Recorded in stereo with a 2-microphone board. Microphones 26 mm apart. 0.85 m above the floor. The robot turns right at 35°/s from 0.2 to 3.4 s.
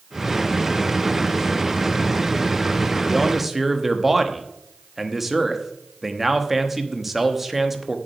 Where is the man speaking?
Centre (ahead or behind), 1.1 m; by 8.0 s 10° right (ahead or behind), 1.1 m.